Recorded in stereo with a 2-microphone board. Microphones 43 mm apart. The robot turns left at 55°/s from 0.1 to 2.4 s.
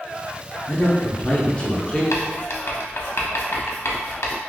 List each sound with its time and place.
0.7 s a man speaking: 25° left (ahead or behind), 0.8 m; by 2.0 s 15° left (ahead or behind), 0.8 m
2.1 s writing: 75° left (ahead or behind), 0.6 m; by 4.3 s 70° left (ahead or behind), 0.6 m